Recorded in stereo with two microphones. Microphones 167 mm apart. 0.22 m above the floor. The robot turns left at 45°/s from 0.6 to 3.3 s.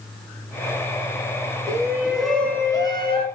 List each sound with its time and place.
1.7 s a shout: 155° right, 3 m; by 3.2 s 135° left, 3 m